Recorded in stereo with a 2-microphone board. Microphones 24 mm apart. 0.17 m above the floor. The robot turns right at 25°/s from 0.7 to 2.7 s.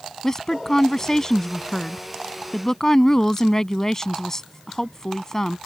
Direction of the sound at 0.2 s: 20° left (ahead or behind).